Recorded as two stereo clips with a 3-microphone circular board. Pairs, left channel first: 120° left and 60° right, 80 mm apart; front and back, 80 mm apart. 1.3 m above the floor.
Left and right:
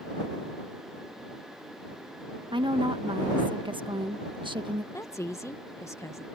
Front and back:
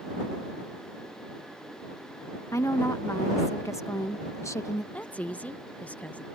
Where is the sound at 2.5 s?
55° right.